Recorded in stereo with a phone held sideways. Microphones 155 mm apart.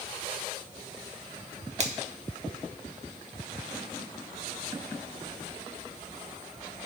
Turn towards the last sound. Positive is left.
turn(degrees=-45)  # may be behind; listen again after turning